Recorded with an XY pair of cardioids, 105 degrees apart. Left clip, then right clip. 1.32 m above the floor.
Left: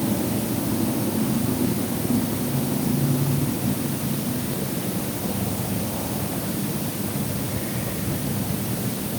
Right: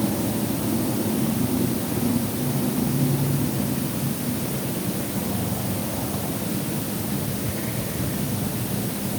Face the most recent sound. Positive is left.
No sound to turn to.